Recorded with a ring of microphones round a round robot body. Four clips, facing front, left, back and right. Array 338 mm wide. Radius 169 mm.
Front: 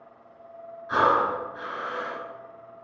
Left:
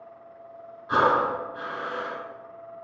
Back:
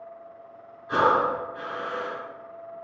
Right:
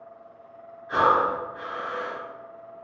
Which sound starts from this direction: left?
Breathing, at 0.9 s.